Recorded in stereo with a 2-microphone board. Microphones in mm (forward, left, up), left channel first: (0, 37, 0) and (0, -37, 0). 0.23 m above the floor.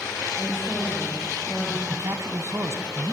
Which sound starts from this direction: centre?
A woman speaking, at 0.4 s.